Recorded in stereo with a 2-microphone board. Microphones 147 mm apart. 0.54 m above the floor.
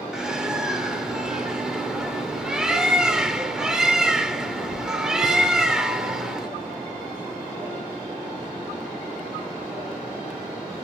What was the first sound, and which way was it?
A bird, 5° right (ahead or behind).